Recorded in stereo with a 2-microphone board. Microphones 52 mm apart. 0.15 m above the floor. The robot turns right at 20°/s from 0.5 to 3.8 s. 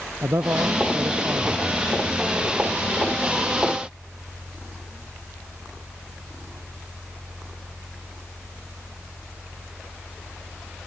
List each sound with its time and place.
0.2 s a man speaking: 55° right (ahead or behind); by 1.7 s 30° right (ahead or behind)